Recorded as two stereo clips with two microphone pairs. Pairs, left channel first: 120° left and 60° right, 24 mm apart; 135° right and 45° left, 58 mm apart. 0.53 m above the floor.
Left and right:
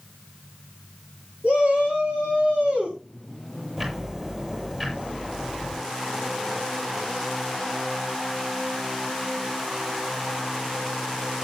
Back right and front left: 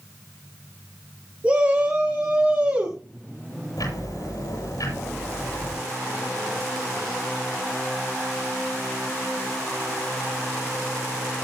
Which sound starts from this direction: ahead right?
A shout, at 1.4 s.